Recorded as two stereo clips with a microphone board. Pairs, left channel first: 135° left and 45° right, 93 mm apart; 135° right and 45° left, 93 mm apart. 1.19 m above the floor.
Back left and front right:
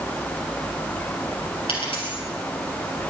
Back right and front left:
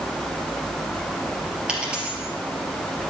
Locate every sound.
1.7 s a dropped coin: 125° left, 3.5 m